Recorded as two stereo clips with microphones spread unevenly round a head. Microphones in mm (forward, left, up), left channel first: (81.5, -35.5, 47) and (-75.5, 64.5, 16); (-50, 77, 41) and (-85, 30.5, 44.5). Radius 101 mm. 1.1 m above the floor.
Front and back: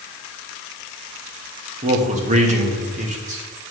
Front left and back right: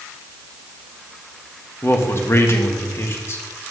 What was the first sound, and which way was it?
A man speaking, 100° left.